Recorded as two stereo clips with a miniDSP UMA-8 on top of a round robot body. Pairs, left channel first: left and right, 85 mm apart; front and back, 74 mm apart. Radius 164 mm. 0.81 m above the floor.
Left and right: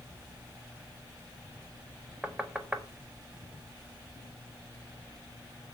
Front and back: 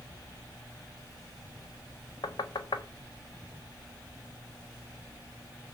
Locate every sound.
2.2 s knocking: 10° right, 1.5 m